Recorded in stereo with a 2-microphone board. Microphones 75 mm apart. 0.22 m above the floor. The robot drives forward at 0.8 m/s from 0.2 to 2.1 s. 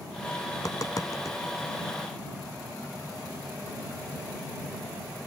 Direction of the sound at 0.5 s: 50° left (ahead or behind).